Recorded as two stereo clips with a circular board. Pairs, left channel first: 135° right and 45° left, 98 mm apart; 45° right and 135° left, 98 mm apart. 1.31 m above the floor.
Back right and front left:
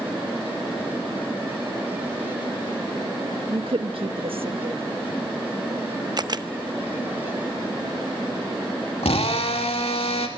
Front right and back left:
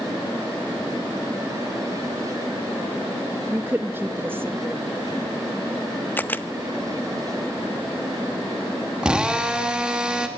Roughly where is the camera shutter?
Ahead.